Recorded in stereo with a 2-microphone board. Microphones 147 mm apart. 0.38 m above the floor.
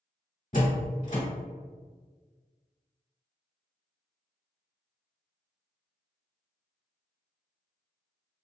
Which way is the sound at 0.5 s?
60° left (ahead or behind).